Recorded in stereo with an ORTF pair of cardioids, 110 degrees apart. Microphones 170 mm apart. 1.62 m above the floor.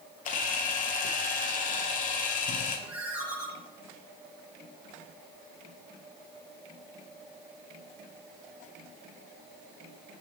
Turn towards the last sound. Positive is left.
turn(degrees=-10)